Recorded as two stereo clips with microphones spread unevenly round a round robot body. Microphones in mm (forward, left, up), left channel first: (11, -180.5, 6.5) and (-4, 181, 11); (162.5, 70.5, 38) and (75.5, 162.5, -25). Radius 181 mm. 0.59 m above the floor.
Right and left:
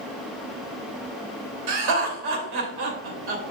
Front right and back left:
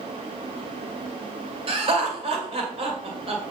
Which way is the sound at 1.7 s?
115° left.